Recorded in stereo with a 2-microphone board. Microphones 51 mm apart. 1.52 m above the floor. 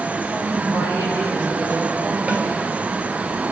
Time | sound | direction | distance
0.3 | a woman speaking | 60° right (ahead or behind) | 9.5 m
2.3 | a snare drum | 30° right (ahead or behind) | 5 m